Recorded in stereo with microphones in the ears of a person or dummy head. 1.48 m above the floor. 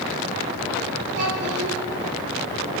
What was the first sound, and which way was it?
A child speaking, 65° right (ahead or behind).